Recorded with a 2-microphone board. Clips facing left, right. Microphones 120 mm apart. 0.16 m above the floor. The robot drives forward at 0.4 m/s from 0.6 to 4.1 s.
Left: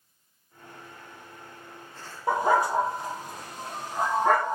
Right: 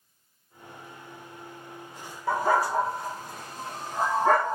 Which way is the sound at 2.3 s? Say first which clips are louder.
Left 1 dB; 25° left (ahead or behind).